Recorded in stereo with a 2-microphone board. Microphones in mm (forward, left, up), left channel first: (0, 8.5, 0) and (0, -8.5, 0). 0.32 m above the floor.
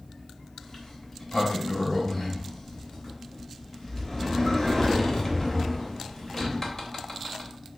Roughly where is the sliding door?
Left.